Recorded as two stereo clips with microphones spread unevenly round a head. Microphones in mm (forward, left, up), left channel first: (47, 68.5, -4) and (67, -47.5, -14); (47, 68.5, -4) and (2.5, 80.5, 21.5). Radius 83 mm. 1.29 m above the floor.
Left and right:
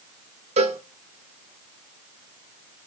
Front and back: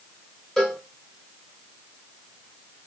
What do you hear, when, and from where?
0.6 s a cowbell: 70° right, 0.8 m